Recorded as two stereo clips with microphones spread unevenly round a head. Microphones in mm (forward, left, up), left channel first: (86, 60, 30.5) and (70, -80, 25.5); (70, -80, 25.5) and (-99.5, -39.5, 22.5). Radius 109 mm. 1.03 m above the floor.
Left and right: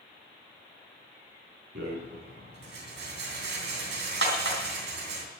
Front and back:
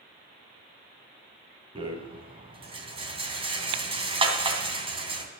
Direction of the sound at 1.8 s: 130° right.